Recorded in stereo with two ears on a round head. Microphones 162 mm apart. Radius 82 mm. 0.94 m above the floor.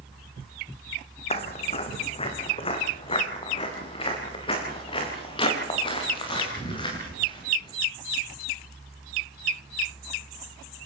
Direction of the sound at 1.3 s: 35° left (ahead or behind).